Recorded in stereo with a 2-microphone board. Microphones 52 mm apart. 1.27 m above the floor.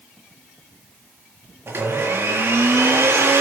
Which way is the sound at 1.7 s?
60° right (ahead or behind).